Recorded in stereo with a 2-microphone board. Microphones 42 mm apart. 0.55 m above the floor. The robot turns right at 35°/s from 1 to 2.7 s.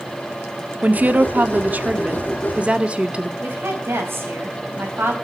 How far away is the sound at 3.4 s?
About 4 m.